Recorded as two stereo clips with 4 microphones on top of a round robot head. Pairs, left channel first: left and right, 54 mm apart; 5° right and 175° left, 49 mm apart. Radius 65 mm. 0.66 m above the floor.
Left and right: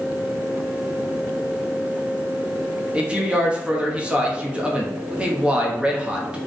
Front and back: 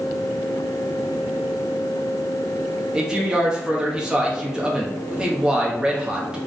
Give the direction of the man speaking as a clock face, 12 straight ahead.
4 o'clock.